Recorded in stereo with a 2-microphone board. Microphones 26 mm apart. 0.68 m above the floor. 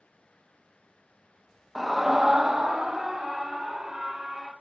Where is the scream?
5° left (ahead or behind), 0.5 m; by 4.5 s 25° right (ahead or behind), 2.5 m.